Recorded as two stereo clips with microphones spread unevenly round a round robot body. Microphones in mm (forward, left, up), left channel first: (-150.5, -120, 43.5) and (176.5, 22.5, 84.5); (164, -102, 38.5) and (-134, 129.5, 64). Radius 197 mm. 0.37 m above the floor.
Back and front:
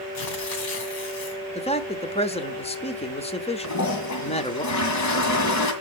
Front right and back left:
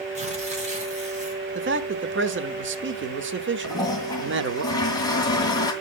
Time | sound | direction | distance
0.1 | tearing paper | 145° right | 2.5 m
1.6 | a man speaking | 165° left | 0.9 m
3.6 | a toilet flushing | 115° right | 2 m